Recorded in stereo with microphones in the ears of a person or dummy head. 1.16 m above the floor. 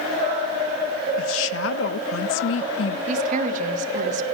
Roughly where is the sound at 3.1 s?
Right.